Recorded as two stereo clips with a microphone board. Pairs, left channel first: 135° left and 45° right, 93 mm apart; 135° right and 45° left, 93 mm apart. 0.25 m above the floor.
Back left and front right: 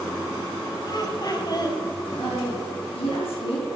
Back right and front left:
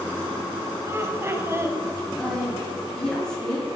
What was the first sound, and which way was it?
Laughter, 105° left.